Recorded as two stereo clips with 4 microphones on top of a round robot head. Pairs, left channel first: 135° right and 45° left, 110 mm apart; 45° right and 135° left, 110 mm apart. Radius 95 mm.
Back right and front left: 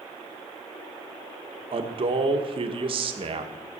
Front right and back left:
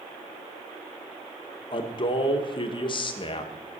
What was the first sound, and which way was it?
A man speaking, 5° left.